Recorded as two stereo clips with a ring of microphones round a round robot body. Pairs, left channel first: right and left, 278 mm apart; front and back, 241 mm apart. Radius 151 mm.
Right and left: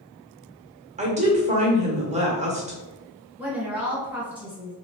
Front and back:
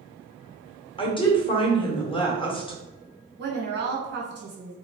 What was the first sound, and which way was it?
A woman speaking, 50° left.